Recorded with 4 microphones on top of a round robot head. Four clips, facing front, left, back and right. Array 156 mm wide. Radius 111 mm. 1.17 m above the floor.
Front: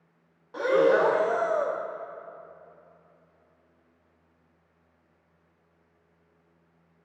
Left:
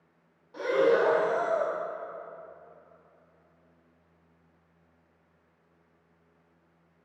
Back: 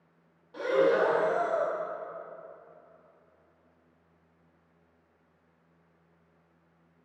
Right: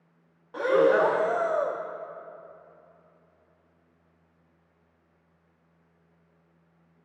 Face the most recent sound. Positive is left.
turn(degrees=-55)